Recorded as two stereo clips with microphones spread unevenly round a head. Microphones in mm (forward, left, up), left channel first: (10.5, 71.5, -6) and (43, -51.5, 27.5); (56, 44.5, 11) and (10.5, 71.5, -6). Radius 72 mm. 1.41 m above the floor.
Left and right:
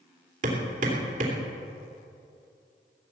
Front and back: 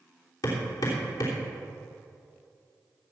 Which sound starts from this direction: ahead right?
Hammering, at 0.4 s.